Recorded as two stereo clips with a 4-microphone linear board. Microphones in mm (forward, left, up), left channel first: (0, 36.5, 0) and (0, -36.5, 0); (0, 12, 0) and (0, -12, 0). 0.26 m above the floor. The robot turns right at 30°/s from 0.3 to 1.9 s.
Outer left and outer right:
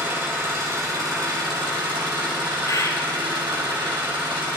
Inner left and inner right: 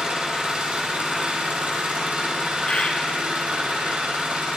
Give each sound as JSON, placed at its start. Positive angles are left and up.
{"t": 0.0, "sound": "an engine running", "azimuth_deg": -150, "distance_m": 6.5}
{"t": 2.7, "sound": "a bird", "side_deg": 50, "distance_m": 2.0}